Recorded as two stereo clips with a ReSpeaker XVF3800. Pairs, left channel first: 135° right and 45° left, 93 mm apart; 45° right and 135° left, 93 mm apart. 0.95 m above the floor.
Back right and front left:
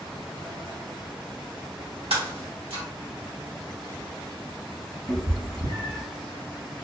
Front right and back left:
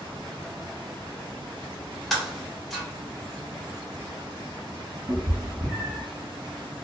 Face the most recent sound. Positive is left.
turn(degrees=65)